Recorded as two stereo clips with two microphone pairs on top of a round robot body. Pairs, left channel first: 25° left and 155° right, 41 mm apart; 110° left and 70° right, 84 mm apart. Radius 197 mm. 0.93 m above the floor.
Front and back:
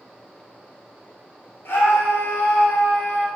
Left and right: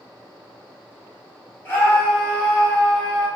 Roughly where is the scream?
Ahead left.